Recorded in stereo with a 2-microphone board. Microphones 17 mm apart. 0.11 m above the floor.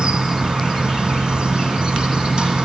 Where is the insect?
75° right (ahead or behind), 1.1 m.